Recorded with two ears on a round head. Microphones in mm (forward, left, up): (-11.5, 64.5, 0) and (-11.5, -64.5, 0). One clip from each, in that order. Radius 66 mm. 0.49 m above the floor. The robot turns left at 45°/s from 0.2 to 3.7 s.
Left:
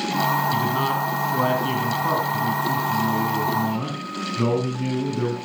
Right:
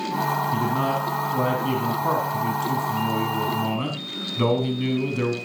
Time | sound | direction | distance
0.5 | a man speaking | 75° left | 3.5 m